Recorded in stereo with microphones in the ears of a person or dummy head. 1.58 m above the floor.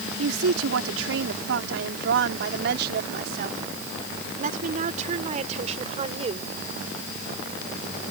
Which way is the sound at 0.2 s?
80° right.